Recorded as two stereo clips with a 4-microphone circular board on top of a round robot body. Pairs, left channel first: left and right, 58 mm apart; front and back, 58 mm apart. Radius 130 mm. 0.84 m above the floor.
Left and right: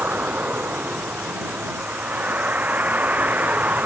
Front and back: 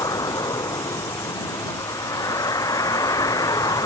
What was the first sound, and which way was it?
A vehicle, 25° right.